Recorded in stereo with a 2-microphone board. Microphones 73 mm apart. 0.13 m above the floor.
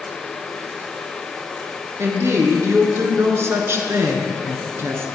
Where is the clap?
No clap in this recording.